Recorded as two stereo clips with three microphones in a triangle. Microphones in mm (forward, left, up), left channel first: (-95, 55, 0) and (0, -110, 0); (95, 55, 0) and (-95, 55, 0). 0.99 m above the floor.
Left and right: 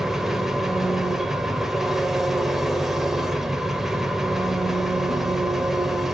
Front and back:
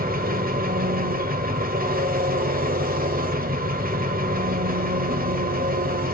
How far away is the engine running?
About 1.3 m.